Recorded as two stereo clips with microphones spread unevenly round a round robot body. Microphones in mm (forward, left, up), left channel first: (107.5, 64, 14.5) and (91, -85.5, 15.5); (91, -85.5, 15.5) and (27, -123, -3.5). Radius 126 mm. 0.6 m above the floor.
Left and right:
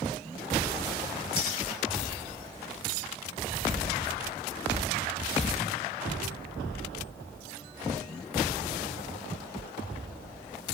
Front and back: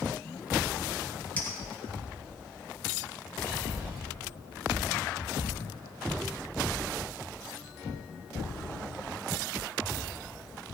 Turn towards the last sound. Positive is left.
turn(degrees=-40)